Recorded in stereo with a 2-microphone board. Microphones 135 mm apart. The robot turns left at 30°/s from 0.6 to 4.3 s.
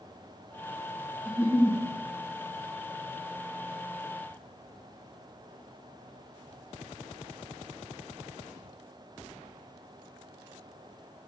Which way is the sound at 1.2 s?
15° right (ahead or behind).